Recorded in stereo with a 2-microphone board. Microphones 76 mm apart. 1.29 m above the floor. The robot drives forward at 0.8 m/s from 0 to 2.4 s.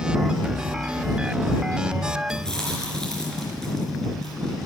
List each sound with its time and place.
2.3 s chewing: 10° left (ahead or behind), 3.5 m